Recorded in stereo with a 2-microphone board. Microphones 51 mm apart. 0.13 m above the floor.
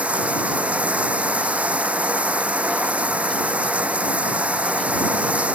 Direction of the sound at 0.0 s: 25° right (ahead or behind).